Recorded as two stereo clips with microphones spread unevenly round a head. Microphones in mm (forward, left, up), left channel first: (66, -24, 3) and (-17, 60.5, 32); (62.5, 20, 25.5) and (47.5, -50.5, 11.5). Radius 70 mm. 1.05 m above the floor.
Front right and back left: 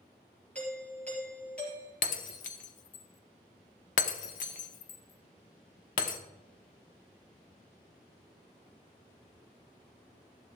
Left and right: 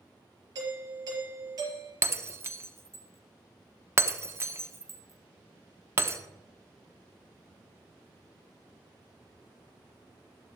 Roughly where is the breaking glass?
Ahead right.